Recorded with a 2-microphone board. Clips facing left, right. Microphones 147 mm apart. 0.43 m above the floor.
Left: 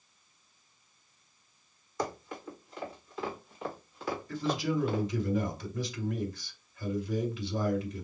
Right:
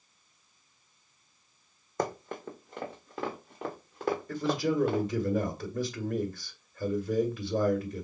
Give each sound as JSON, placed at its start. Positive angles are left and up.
{"t": 2.0, "sound": "running footsteps", "side_deg": -50, "distance_m": 1.4}
{"t": 4.3, "sound": "a man speaking", "side_deg": -50, "distance_m": 2.0}